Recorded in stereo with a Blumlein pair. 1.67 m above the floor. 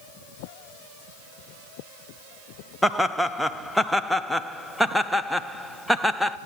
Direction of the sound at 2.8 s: Straight ahead.